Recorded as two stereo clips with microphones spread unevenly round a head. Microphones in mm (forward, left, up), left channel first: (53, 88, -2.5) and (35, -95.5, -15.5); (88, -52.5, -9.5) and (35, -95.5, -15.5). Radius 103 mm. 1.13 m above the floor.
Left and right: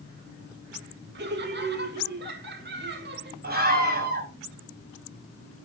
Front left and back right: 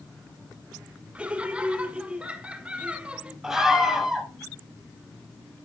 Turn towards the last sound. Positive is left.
turn(degrees=-60)